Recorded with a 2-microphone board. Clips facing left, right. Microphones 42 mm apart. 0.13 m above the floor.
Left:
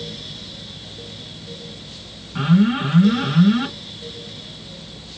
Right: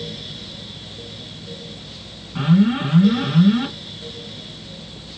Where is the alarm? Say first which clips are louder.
Even; 5° left (ahead or behind), 1.9 m.